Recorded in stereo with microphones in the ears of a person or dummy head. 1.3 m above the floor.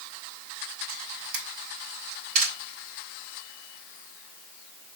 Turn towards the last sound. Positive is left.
turn(degrees=-50)  # may be behind; listen again after turning